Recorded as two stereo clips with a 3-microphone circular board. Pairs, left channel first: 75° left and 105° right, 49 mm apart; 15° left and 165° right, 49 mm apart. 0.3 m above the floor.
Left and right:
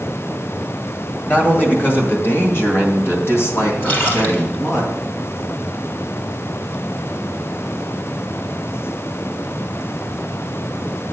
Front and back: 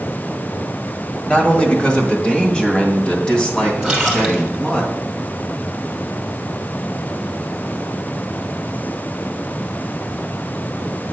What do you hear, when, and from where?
1.3 s a man speaking: 70° left, 1.6 m; by 4.8 s 85° left, 3.5 m
3.8 s a splash: 120° left, 3 m